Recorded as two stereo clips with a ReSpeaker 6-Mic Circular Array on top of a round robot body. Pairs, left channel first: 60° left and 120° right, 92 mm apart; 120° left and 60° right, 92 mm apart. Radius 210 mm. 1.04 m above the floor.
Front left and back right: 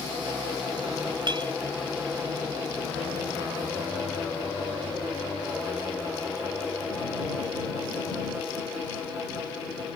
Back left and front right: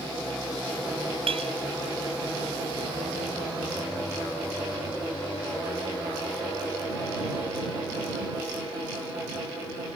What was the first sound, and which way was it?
A clink, 80° right.